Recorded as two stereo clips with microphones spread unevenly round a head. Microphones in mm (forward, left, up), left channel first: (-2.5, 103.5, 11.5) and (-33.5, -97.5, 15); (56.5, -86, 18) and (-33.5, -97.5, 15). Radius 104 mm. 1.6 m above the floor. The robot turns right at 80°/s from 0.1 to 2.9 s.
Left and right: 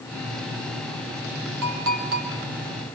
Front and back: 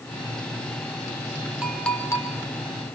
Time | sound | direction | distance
1.6 | a clink | 90° right | 3 m